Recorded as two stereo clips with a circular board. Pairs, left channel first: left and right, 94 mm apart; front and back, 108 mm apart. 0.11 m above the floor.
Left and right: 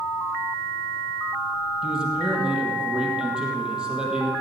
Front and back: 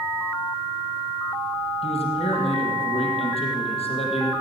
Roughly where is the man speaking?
Ahead.